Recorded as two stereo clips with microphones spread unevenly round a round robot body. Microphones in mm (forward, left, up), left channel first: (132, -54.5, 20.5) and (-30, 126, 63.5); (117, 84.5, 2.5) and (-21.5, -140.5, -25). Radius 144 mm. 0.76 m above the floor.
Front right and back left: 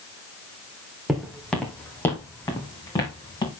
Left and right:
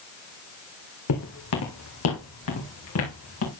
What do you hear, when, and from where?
1.1 s footsteps: 45° left, 2.0 m; by 3.5 s 25° left, 3.5 m